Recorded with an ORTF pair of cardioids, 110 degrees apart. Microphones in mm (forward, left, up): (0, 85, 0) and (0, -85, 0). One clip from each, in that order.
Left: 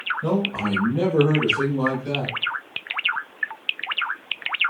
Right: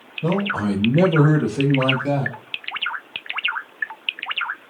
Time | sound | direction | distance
0.2 | a man speaking | 10° right | 0.6 m